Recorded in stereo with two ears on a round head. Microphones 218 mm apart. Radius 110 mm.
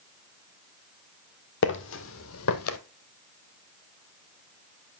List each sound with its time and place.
1.6 s footsteps: 50° left (ahead or behind), 1.4 m; by 2.8 s 65° left (ahead or behind), 1.2 m